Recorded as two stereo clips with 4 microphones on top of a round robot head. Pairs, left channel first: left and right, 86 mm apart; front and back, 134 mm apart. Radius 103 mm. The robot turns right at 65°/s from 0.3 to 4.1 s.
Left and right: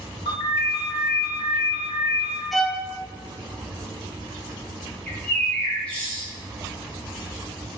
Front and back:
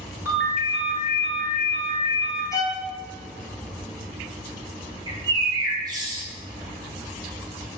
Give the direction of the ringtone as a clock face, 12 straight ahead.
8 o'clock.